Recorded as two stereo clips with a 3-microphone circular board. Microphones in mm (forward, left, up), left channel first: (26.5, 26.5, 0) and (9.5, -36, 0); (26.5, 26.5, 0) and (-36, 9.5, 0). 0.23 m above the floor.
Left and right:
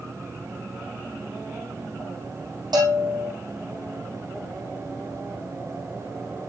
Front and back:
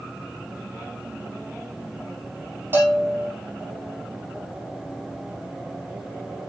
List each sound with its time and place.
2.7 s a bell: 105° right, 8 m